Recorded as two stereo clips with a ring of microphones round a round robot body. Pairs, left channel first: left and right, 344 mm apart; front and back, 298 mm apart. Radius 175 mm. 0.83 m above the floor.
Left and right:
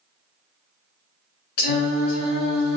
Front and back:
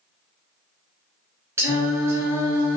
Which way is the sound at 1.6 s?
100° left.